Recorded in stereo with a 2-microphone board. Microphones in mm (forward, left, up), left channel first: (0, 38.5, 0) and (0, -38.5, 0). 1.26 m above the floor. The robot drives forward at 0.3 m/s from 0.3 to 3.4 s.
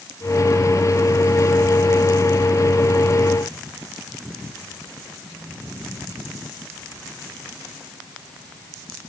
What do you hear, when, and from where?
Only background noise.